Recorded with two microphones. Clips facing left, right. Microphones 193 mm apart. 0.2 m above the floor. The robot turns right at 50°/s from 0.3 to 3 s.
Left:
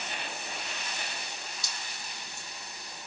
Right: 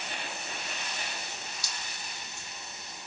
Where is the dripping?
50° left (ahead or behind), 1.0 m; by 2.5 s 35° left (ahead or behind), 1.0 m.